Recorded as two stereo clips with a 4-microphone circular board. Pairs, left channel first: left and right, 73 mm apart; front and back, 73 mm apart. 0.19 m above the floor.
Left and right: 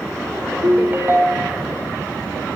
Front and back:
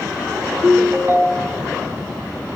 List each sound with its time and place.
0.6 s a ringtone: 135° right, 0.7 m